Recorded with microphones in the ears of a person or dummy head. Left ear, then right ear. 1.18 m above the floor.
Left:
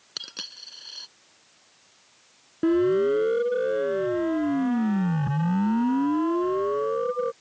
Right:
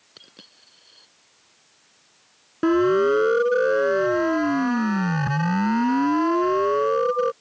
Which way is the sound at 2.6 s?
45° right (ahead or behind).